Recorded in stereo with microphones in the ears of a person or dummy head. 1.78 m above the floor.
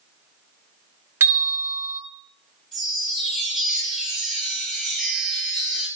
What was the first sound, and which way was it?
A bell, 10° right (ahead or behind).